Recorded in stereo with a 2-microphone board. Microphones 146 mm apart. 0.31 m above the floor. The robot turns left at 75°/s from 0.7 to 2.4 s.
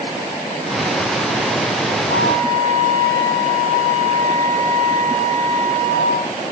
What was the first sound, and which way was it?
A flute, 5° left (ahead or behind).